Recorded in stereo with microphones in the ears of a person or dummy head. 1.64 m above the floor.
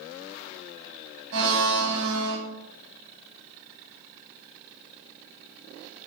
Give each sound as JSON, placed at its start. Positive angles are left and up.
{"t": 1.3, "sound": "a blender", "side_deg": -65, "distance_m": 1.1}